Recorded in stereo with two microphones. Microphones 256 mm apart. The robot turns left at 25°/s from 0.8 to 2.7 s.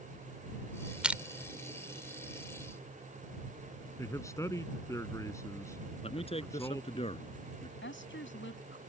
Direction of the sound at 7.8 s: 50° left (ahead or behind).